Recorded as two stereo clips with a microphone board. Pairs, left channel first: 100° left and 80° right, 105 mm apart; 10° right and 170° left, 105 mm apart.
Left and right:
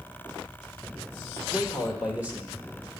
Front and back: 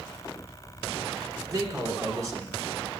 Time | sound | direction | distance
1.5 | a man speaking | 150° right | 1.6 m